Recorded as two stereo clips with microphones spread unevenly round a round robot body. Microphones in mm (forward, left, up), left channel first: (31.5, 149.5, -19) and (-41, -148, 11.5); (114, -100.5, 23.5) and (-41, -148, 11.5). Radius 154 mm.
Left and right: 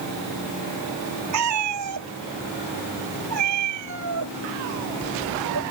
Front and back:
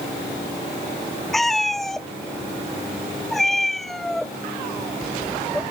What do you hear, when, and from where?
1.3 s a cat meowing: 70° right